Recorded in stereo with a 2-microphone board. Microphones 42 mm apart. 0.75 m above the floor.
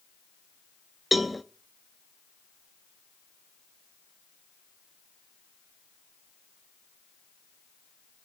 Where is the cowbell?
5° right (ahead or behind), 0.6 m.